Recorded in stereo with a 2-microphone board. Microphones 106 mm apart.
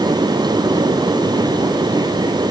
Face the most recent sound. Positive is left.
No sound to turn to.